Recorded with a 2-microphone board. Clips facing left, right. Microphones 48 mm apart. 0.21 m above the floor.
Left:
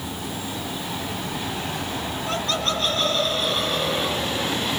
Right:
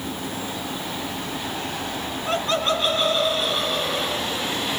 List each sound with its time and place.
2.3 s laughter: 25° right (ahead or behind), 1.9 m; by 4.6 s 15° left (ahead or behind), 1.7 m